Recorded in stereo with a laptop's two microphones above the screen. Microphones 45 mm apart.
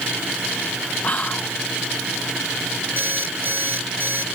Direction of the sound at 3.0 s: 55° right (ahead or behind).